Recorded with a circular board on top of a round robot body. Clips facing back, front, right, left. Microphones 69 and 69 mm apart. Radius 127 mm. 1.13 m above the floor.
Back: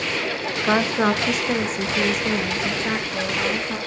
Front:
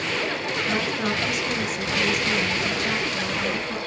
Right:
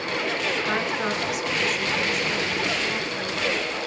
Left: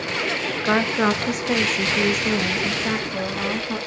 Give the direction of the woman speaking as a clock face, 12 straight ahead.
7 o'clock.